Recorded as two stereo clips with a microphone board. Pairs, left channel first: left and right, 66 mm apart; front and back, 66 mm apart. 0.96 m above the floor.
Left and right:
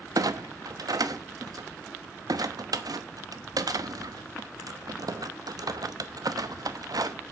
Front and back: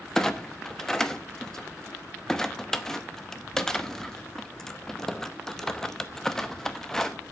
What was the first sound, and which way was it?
A clunk, 85° right.